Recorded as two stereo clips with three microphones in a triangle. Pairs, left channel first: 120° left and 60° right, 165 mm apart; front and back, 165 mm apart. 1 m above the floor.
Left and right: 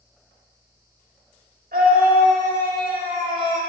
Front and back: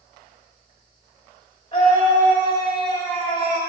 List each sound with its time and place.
1.7 s a scream: 55° right, 1.7 m